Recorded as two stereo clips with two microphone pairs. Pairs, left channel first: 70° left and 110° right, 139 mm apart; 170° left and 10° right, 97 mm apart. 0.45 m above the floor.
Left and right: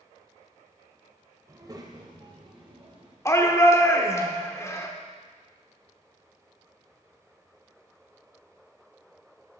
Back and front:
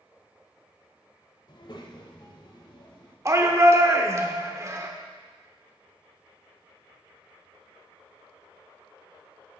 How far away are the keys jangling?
I don't hear keys jangling.